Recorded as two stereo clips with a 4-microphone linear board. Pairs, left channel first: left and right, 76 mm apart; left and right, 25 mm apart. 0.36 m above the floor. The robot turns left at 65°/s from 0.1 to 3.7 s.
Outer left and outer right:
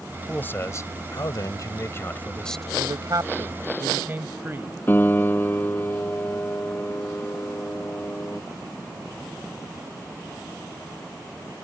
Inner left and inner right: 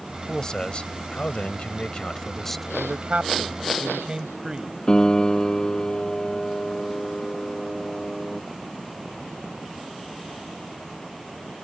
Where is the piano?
25° left (ahead or behind).